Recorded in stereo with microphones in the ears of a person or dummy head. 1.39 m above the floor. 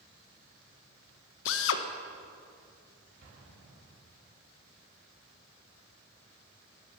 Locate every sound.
1.4 s a drill: 75° left (ahead or behind), 1.0 m
3.2 s an explosion: 70° right (ahead or behind), 3.5 m